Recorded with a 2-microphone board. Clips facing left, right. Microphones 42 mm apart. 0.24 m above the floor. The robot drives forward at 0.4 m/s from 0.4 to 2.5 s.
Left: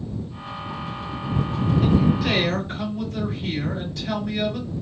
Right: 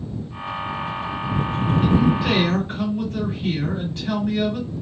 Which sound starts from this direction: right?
A man speaking, at 1.8 s.